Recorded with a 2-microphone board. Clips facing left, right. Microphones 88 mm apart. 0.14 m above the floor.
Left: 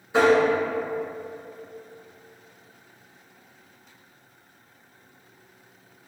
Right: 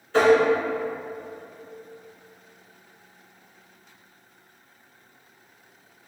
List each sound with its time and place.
0.1 s tapping: 15° left (ahead or behind), 1.3 m